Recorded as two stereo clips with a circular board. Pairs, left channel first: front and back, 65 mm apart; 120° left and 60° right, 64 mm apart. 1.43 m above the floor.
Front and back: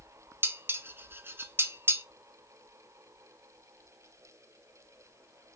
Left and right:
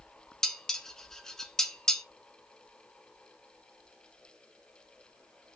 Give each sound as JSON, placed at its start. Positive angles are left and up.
{"t": 0.4, "sound": "dishes clattering", "azimuth_deg": -165, "distance_m": 0.5}